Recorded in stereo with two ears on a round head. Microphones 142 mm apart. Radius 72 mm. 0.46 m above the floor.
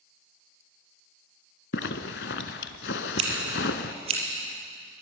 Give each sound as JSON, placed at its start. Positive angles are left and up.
{"t": 1.7, "sound": "a zipper", "side_deg": 80, "distance_m": 1.1}
{"t": 3.2, "sound": "scissors", "side_deg": -40, "distance_m": 6.0}